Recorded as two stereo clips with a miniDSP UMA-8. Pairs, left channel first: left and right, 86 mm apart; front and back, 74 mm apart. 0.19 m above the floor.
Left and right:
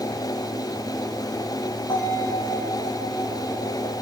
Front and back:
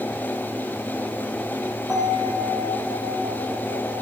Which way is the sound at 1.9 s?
90° left.